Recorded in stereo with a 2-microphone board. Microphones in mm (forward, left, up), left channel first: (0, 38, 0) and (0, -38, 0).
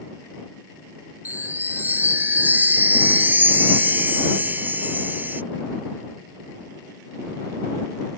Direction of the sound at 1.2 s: 25° right (ahead or behind).